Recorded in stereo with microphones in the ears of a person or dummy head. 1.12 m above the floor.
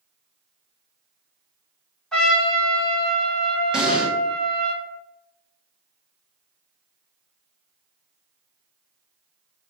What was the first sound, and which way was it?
A trumpet, centre (ahead or behind).